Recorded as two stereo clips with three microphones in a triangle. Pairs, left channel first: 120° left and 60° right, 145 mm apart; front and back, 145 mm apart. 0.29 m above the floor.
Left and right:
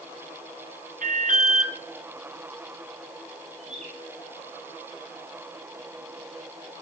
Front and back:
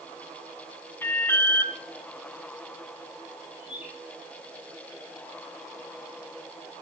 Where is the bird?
100° right, 6.5 m.